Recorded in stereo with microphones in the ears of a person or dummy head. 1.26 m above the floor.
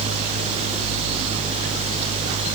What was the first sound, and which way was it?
Only background noise.